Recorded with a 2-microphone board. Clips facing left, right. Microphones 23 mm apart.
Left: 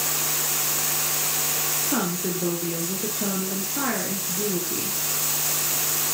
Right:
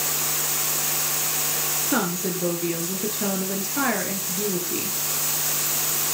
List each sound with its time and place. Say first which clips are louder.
1.9 s a woman speaking: right 4 dB; 35° right (ahead or behind), 2 m